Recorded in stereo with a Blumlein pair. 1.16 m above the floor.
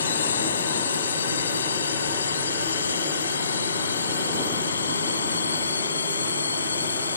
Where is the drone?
70° left; by 7.2 s 75° left.